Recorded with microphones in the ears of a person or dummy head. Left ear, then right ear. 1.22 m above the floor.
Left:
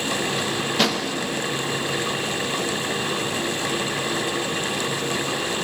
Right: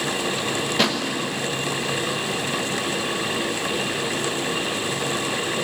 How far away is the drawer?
About 0.6 m.